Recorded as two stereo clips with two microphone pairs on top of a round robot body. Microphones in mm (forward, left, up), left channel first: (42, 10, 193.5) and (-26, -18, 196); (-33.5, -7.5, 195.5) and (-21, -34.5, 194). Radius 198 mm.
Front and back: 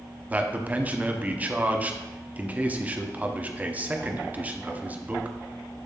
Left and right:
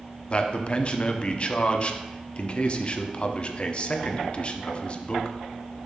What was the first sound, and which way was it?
A man speaking, 140° left.